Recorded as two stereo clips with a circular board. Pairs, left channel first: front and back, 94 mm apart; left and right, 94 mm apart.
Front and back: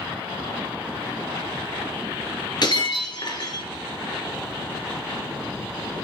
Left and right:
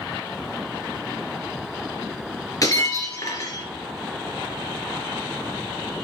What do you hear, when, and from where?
2.6 s breaking glass: 40° left, 2.5 m